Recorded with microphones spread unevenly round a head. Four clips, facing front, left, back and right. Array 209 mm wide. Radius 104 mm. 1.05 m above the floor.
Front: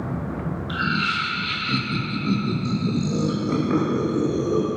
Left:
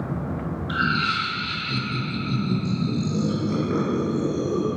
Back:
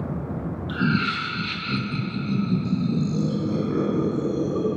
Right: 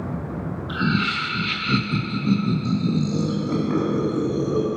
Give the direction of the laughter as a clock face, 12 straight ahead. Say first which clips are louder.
Right 1 dB, back 2 dB; 5 o'clock.